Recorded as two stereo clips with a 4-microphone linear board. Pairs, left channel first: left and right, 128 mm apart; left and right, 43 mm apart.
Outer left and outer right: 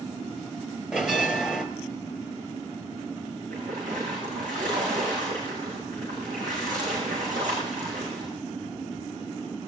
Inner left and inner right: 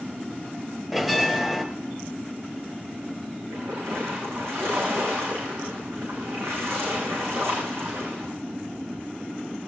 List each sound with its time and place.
0.9 s a bell: 5° right (ahead or behind), 1.4 m
3.5 s a splash: 85° right, 6.5 m